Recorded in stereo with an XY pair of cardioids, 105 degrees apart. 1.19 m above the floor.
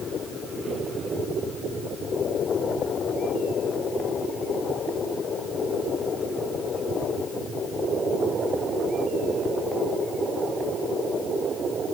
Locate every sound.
Only background noise.